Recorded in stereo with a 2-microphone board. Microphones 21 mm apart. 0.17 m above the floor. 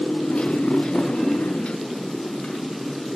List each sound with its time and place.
0.0 s a motorcycle: 50° left (ahead or behind)